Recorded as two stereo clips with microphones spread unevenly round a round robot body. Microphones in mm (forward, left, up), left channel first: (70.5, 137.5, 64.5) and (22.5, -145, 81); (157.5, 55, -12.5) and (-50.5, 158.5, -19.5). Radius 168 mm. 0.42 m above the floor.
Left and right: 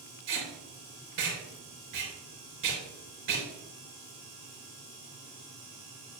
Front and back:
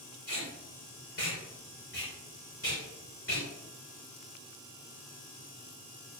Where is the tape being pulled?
80° right, 4 m.